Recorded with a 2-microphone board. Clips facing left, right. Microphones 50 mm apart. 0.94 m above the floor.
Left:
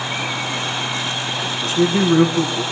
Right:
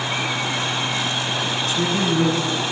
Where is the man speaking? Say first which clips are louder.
Left 7 dB; 35° left (ahead or behind), 8 m.